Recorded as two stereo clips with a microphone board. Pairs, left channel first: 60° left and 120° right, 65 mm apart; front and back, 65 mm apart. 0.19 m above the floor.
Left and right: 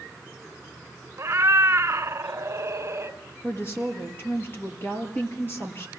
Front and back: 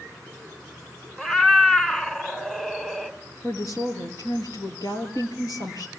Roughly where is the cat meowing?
Right.